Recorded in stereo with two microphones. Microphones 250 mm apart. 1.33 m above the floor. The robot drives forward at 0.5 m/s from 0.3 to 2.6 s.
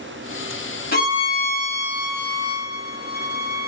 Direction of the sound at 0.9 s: 35° left (ahead or behind).